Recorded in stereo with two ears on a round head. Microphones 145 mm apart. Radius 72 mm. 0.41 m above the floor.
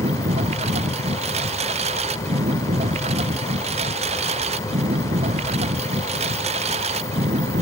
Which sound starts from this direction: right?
A lawn mower, at 0.0 s.